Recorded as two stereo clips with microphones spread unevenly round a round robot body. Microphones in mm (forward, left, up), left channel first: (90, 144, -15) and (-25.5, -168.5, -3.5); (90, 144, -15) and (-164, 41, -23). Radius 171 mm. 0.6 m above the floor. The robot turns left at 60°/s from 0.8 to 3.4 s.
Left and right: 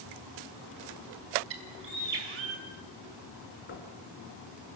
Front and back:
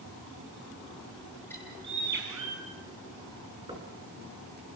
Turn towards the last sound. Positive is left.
turn(degrees=130)